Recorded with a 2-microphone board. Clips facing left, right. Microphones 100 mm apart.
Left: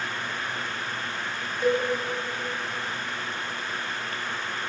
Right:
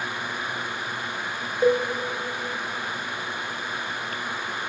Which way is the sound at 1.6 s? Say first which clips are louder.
Right 4 dB; 40° right (ahead or behind).